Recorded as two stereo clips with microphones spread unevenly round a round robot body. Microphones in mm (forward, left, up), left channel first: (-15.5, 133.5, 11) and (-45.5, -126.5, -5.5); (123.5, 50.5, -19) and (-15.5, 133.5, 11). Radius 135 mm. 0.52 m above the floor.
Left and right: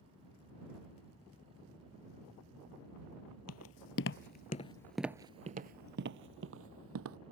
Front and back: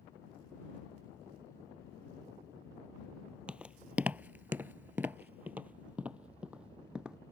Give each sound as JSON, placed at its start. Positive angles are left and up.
{"t": 3.5, "sound": "footsteps", "azimuth_deg": 75}